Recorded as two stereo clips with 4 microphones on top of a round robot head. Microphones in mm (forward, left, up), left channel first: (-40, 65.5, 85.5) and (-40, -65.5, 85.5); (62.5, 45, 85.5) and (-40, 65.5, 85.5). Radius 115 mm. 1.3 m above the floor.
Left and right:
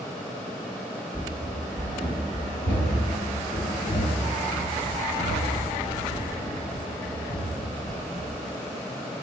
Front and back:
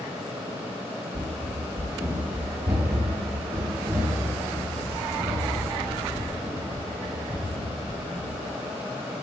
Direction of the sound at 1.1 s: 170° left.